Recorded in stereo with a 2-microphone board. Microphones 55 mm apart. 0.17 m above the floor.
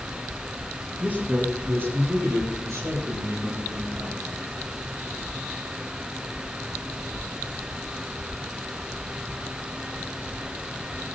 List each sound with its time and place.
1.0 s a man speaking: 25° right (ahead or behind), 4 m; by 4.4 s 65° right (ahead or behind), 7 m